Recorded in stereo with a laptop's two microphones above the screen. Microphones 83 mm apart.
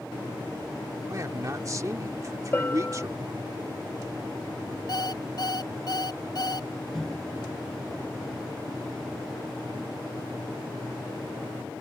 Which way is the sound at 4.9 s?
55° left (ahead or behind).